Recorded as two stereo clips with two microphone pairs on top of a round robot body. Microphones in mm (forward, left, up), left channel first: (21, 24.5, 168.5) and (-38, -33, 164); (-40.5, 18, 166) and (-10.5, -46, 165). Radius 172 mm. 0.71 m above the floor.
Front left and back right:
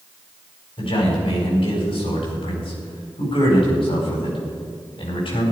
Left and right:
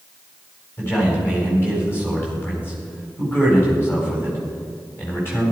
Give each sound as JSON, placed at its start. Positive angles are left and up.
{"t": 0.8, "sound": "a man speaking", "azimuth_deg": 55, "distance_m": 4.5}